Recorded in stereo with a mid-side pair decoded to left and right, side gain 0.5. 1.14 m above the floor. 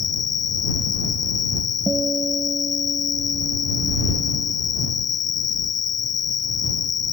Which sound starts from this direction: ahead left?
An insect, at 0.0 s.